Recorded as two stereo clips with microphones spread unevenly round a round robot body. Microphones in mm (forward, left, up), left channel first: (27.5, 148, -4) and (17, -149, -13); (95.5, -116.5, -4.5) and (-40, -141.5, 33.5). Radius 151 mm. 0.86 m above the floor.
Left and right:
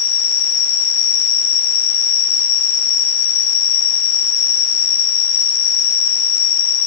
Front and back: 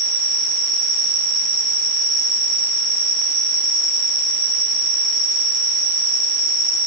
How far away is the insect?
About 3 m.